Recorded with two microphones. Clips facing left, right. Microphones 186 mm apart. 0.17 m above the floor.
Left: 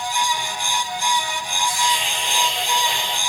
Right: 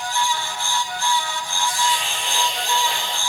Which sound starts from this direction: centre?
A hiss, at 1.6 s.